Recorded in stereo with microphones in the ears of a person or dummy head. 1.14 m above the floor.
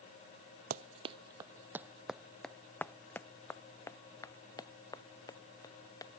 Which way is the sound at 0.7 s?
40° right (ahead or behind).